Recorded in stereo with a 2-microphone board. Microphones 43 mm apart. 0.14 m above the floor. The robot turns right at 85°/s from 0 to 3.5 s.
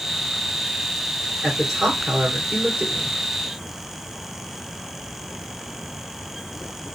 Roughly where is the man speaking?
Centre.